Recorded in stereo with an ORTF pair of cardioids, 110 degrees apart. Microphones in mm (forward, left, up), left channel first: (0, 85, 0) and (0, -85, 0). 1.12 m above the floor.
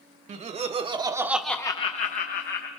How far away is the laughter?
About 1.4 m.